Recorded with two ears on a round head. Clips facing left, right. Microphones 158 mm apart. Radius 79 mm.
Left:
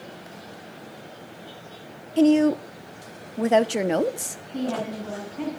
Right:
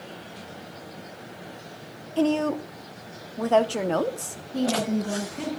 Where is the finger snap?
No finger snap in this recording.